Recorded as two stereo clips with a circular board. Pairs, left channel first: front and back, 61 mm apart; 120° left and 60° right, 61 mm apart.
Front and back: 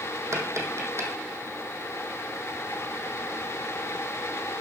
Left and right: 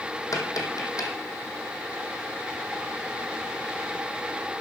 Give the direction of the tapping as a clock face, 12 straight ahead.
7 o'clock.